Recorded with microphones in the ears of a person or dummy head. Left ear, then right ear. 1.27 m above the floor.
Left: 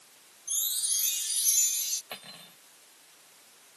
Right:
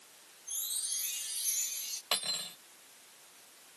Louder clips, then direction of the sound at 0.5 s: Left 7 dB; 15° left (ahead or behind).